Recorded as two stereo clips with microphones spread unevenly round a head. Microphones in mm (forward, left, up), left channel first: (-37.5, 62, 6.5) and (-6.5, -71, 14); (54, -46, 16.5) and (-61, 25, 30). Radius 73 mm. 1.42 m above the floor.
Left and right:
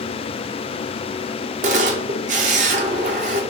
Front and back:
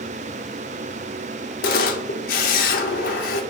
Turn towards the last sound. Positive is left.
turn(degrees=-50)